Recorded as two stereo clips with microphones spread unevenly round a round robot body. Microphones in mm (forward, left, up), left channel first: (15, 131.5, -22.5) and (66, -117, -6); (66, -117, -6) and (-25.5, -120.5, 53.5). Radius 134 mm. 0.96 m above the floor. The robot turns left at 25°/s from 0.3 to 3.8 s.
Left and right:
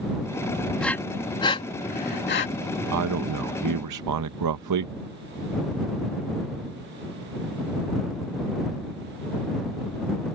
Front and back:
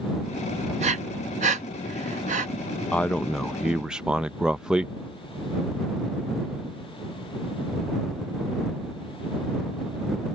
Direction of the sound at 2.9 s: 55° right.